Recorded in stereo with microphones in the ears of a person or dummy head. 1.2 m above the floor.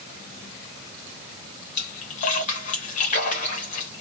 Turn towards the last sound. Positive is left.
turn(degrees=40)  # may be behind; listen again after turning